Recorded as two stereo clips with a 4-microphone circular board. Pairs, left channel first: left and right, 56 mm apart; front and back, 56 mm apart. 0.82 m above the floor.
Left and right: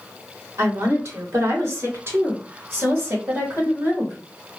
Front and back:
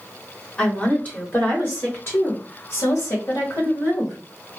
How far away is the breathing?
No breathing in this recording.